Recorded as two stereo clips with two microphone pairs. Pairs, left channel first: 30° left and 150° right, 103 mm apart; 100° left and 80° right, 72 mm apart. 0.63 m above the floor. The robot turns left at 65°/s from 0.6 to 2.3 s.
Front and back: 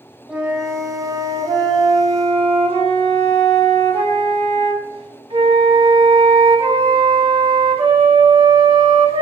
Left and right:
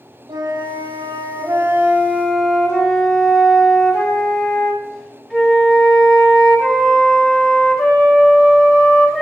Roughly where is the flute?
Ahead right.